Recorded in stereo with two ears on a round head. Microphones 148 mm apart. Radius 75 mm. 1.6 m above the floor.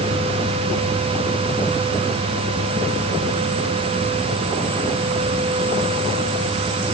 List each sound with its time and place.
Only background noise.